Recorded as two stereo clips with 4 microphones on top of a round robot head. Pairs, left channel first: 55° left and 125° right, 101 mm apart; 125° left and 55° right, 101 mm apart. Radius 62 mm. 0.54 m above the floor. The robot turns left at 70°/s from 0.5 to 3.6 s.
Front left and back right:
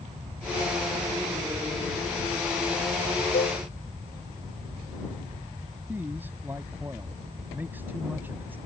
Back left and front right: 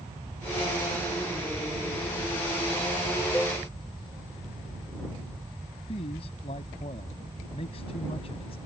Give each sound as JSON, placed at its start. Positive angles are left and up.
{"t": 3.3, "sound": "a cowbell", "azimuth_deg": 50}
{"t": 5.9, "sound": "a man speaking", "azimuth_deg": 160}